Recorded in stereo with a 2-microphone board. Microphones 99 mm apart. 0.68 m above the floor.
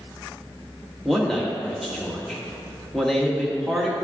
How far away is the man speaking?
About 1.1 m.